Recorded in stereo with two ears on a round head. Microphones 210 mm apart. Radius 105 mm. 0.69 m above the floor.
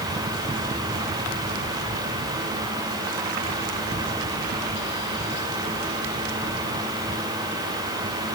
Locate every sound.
Only background noise.